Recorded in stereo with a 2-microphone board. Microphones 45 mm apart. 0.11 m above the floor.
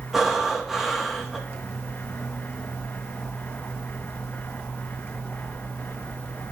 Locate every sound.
0.1 s breathing: 5° right (ahead or behind), 1.9 m